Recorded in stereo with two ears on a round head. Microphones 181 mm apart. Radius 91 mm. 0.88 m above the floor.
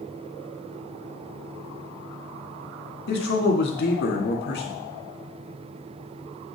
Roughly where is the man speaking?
Left.